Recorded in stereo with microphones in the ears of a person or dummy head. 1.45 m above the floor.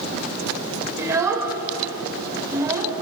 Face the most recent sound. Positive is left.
turn(degrees=-10)  # may be behind; listen again after turning